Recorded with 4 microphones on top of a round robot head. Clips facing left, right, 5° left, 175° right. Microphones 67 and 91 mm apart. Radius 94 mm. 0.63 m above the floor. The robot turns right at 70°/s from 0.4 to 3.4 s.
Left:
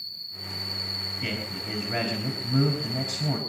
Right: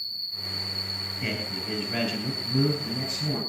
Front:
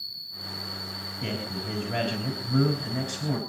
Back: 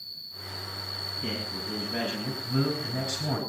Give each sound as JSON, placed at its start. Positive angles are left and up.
{"t": 0.0, "sound": "an insect", "azimuth_deg": 0, "distance_m": 7.5}
{"t": 1.2, "sound": "a man speaking", "azimuth_deg": -15, "distance_m": 6.0}